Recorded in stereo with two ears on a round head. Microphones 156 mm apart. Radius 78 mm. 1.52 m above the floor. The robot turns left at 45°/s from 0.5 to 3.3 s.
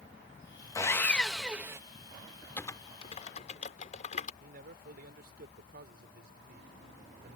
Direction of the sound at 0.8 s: 25° left.